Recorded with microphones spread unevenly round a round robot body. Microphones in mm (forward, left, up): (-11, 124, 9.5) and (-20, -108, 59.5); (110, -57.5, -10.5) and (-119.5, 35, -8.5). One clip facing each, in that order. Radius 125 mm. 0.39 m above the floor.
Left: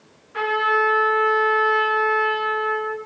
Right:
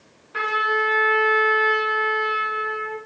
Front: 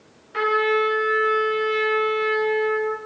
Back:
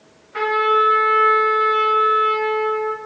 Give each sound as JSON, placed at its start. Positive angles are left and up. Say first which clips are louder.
{"t": 0.3, "sound": "a trumpet", "louder": "left 4 dB, back 1 dB", "azimuth_deg": -70, "distance_m": 1.9}